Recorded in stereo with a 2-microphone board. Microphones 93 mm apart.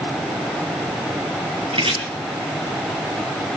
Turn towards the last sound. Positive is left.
turn(degrees=-75)  # may be behind; listen again after turning